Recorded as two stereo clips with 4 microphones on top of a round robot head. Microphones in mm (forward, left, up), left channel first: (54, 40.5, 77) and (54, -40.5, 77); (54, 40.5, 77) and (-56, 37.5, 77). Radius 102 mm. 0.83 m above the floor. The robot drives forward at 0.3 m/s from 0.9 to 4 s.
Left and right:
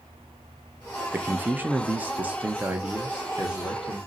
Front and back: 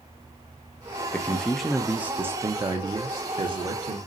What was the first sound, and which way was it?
A man speaking, 50° right.